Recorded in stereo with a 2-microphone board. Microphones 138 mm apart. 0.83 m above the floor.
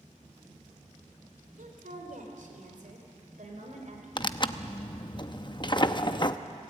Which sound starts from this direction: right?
A woman speaking, at 1.6 s.